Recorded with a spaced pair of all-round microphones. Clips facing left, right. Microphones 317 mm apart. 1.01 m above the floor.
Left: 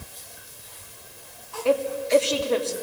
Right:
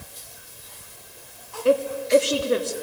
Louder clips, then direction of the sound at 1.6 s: Right 2 dB; 20° right (ahead or behind).